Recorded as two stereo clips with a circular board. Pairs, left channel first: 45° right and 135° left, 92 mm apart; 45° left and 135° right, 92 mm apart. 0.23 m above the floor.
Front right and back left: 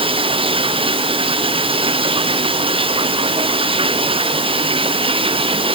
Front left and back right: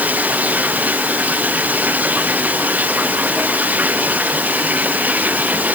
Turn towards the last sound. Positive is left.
turn(degrees=150)